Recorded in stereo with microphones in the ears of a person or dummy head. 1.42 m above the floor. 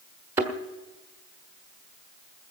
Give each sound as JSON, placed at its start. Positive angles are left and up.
{"t": 0.4, "sound": "a thud", "side_deg": -15, "distance_m": 1.4}